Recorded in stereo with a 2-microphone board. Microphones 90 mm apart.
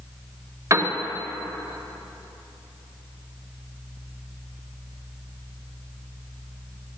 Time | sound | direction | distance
0.7 | a piano | 35° right (ahead or behind) | 1.0 m